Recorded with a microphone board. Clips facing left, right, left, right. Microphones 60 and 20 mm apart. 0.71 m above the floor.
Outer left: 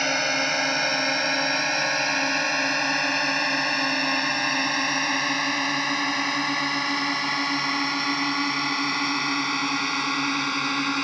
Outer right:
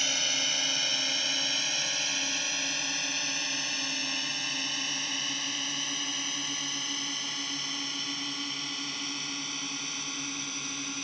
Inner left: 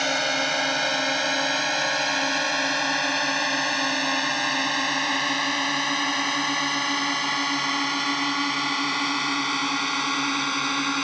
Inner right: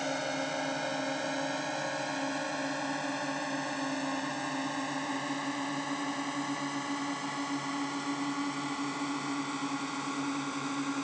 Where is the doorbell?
No doorbell in this recording.